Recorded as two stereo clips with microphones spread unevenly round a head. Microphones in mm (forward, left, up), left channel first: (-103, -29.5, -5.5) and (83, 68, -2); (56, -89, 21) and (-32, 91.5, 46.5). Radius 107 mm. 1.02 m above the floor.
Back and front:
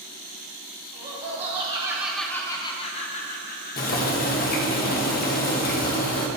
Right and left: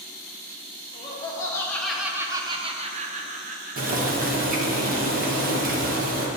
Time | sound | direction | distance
0.9 | laughter | 10° right | 1.1 m
3.8 | boiling | 165° left | 1.2 m